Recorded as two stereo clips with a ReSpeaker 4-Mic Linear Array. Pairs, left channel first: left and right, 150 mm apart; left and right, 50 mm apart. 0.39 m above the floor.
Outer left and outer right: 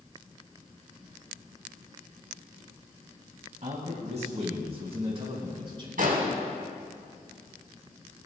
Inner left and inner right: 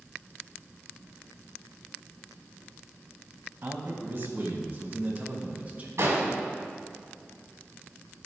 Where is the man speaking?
50° right (ahead or behind), 2.5 m; by 5.9 s 35° right (ahead or behind), 3.5 m.